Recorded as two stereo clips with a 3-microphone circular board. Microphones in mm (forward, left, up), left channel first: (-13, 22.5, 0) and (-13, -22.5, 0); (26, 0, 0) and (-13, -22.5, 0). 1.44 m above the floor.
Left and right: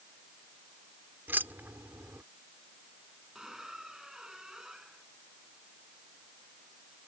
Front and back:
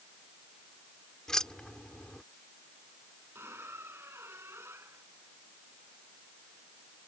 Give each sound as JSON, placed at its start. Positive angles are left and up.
{"t": 1.3, "sound": "keys jangling", "azimuth_deg": -45}
{"t": 3.4, "sound": "a squeak", "azimuth_deg": -165}